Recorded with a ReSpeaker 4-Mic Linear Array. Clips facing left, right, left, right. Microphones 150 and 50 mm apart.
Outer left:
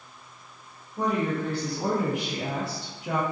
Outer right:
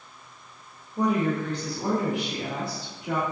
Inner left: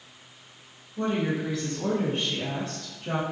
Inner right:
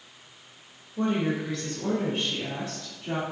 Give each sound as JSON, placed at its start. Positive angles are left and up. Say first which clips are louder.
{"t": 1.0, "sound": "a woman speaking", "louder": "outer right 2 dB, inner right 1 dB", "side_deg": -15, "distance_m": 0.7}